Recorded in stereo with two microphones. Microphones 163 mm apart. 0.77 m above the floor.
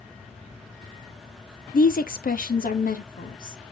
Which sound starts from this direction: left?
A woman speaking, at 1.7 s.